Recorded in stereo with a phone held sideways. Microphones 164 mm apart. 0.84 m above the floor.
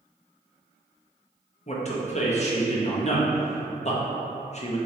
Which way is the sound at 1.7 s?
45° left (ahead or behind).